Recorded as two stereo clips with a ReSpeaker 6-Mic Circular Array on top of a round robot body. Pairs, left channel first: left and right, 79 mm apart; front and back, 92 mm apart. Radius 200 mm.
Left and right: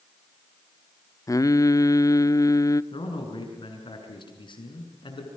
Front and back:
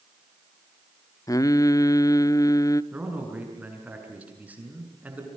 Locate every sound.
1.3 s singing: 50° left, 1.0 m
2.9 s a man speaking: 105° left, 7 m